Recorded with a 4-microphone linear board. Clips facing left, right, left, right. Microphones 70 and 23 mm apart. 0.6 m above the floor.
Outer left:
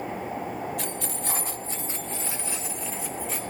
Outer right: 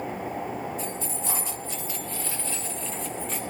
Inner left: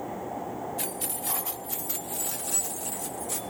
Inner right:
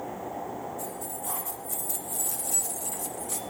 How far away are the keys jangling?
About 1.8 m.